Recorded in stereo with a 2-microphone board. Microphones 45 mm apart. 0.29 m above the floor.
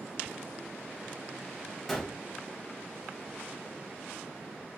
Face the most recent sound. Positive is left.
turn(degrees=5)  # may be behind; listen again after turning